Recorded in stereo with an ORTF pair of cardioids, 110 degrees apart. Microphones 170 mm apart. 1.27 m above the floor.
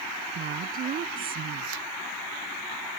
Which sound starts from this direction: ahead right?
A woman speaking, at 0.3 s.